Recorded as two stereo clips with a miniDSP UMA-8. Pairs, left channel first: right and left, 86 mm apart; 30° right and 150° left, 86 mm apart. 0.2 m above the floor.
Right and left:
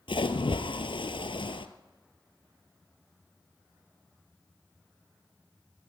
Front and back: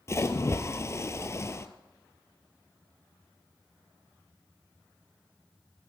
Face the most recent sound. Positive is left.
turn(degrees=-85)